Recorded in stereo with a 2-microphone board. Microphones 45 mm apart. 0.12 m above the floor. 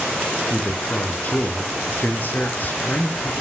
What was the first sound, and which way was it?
A man speaking, 40° left (ahead or behind).